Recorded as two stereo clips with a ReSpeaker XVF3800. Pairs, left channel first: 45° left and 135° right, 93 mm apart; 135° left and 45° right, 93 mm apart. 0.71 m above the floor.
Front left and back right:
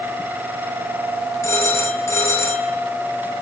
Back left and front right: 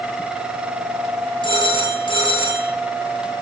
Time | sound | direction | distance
1.4 | a phone ringing | 110° left | 7.5 m